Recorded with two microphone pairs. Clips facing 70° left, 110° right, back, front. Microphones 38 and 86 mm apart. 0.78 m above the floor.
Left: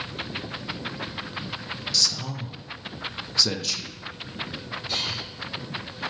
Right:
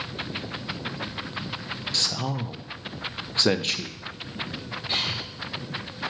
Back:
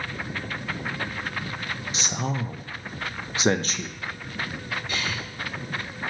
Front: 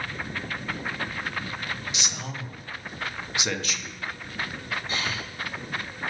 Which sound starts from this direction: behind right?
A man speaking, at 1.9 s.